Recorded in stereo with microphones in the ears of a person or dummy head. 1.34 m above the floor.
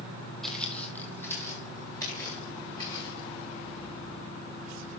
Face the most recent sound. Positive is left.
turn(degrees=30)  # may be behind; listen again after turning